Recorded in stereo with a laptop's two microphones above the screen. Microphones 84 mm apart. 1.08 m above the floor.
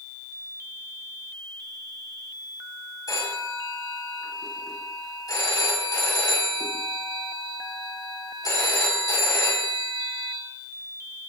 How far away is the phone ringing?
About 5 m.